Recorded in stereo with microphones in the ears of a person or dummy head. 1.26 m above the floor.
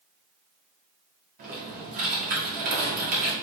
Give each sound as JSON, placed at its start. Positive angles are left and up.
{"t": 1.4, "sound": "typing on a keyboard", "side_deg": -45, "distance_m": 1.3}